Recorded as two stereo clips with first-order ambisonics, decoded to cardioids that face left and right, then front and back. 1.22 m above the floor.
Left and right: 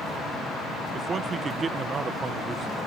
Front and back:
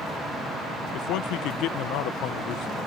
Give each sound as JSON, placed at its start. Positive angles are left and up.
{"t": 0.9, "sound": "a man speaking", "azimuth_deg": -20}